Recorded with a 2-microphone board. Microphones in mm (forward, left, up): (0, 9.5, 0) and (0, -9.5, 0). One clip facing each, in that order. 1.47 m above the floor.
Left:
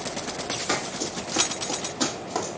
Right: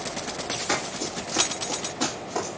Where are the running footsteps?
15° left (ahead or behind), 2.5 m; by 2.6 s 40° left (ahead or behind), 2 m.